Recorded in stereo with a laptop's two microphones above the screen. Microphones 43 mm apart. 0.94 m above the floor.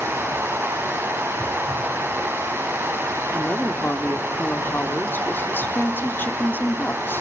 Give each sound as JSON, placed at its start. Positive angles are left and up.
{"t": 0.0, "sound": "running water", "side_deg": -85, "distance_m": 7.5}
{"t": 3.3, "sound": "a woman speaking", "side_deg": 55, "distance_m": 1.9}